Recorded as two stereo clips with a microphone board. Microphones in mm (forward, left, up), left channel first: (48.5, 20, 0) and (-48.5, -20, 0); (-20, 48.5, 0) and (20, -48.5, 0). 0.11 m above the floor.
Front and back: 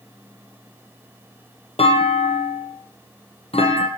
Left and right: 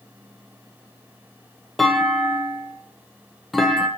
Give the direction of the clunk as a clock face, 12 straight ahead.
11 o'clock.